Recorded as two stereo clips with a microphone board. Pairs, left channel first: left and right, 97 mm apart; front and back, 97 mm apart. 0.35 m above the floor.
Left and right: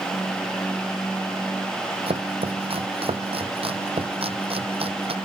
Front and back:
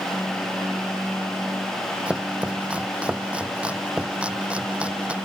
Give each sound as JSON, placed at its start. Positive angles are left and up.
{"t": 2.1, "sound": "chopping", "azimuth_deg": -100}